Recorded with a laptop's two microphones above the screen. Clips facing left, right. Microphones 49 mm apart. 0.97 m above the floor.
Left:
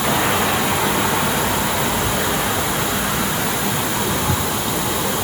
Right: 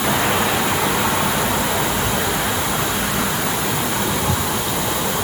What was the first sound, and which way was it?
Only background noise.